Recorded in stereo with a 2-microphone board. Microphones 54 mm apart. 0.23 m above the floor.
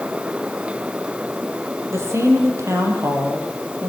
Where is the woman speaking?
65° right (ahead or behind), 6 m.